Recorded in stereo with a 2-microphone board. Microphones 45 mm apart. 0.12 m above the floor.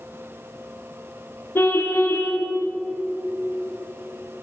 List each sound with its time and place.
1.6 s a car horn: 55° left (ahead or behind), 4 m